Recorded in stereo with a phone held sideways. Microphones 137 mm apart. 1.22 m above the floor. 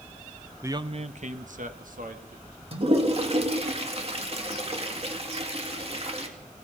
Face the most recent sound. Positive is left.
turn(degrees=-45)  # may be behind; listen again after turning